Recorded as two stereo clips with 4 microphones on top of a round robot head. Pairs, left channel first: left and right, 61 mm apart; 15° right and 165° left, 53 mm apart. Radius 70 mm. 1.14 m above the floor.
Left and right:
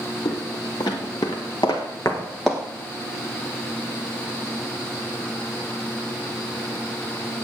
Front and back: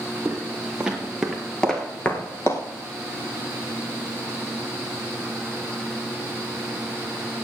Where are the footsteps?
95° left, 2.5 m; by 2.6 s 15° right, 1.2 m.